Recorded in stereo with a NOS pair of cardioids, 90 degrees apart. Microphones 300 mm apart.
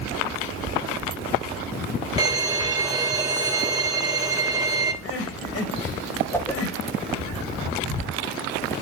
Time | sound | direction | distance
2.2 | a violin | 15° right | 0.8 m
5.0 | crying | 50° left | 1.5 m
6.3 | a whoosh | 5° left | 0.7 m